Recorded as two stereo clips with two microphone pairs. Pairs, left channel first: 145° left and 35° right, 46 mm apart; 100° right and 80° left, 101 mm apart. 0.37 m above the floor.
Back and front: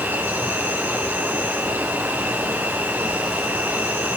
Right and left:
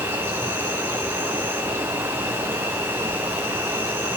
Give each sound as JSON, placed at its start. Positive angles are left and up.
{"t": 0.0, "sound": "an insect", "azimuth_deg": 10, "distance_m": 6.0}